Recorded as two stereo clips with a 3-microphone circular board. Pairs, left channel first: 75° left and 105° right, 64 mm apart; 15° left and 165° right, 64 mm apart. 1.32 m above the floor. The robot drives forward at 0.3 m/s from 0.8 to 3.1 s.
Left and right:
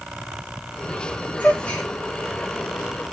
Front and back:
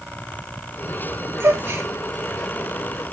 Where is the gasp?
145° left, 2.5 m.